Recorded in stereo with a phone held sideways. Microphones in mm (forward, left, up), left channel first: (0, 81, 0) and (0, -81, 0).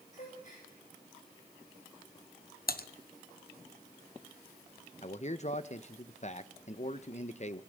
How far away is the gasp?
About 8.5 m.